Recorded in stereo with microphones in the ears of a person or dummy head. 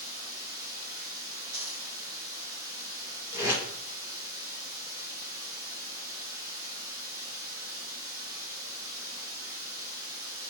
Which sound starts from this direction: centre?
Running water, at 0.0 s.